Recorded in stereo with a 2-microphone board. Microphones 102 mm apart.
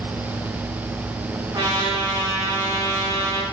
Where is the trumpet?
35° right (ahead or behind), 1.1 m.